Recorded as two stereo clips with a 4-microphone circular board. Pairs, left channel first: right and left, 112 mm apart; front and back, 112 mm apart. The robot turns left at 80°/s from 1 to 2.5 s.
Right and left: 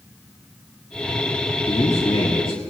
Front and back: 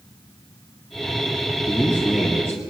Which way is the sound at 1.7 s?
50° right.